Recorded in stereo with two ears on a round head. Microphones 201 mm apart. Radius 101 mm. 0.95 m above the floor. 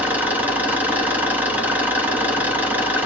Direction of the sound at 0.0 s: 10° right (ahead or behind).